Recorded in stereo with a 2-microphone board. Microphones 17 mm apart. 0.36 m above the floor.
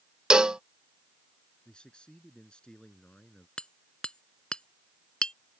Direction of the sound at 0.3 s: 65° right (ahead or behind).